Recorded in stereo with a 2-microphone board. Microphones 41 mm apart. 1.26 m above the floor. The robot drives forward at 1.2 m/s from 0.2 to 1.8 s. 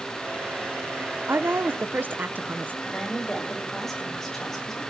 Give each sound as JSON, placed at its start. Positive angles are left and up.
{"t": 1.3, "sound": "a woman speaking", "side_deg": -60, "distance_m": 0.9}
{"t": 2.9, "sound": "a woman speaking", "side_deg": 10, "distance_m": 8.0}